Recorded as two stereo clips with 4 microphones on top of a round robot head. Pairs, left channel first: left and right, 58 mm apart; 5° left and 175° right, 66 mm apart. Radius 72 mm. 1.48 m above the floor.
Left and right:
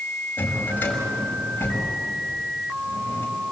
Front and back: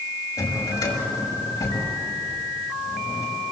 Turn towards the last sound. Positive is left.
turn(degrees=35)